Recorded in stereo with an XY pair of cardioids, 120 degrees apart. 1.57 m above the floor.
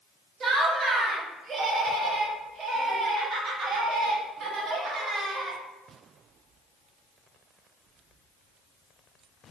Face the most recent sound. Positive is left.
turn(degrees=-50)